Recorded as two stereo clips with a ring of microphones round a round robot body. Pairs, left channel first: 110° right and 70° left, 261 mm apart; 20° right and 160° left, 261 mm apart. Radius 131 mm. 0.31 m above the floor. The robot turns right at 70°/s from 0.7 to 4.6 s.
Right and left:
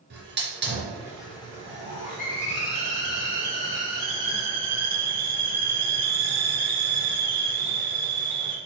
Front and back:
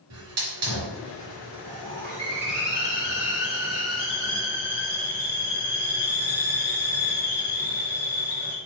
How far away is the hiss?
About 3.5 m.